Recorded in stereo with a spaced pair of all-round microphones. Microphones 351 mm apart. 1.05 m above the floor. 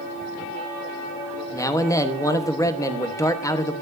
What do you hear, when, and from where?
1.5 s a man speaking: 10° left (ahead or behind), 1.1 m